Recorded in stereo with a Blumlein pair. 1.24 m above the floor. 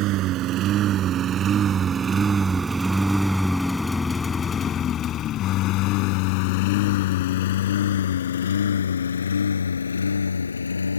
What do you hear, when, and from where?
0.0 s a lawn mower: 35° right; by 11.0 s 75° left